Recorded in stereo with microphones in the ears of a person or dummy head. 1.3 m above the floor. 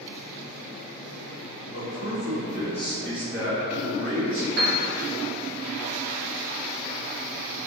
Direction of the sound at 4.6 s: 50° right (ahead or behind).